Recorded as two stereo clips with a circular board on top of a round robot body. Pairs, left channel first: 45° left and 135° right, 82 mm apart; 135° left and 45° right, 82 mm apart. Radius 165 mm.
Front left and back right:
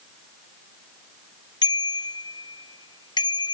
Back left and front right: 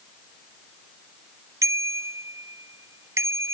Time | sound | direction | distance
1.6 | a bicycle bell | 10° left | ?